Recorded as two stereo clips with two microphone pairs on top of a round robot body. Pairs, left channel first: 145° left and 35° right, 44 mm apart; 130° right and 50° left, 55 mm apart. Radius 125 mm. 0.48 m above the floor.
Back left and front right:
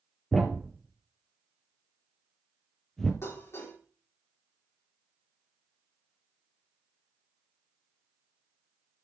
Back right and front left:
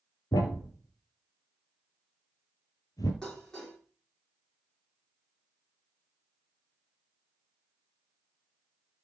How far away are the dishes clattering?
About 6.5 m.